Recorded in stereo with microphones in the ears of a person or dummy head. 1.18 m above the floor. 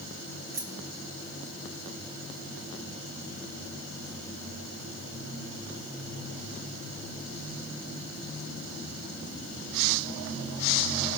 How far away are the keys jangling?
About 0.9 m.